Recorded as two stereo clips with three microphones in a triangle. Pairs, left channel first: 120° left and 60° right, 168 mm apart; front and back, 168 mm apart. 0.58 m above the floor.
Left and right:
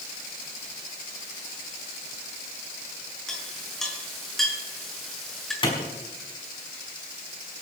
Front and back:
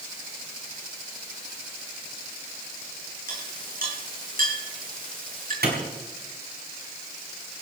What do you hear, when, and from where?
3.3 s a clink: 150° right, 5 m
5.6 s a clap: straight behind, 5 m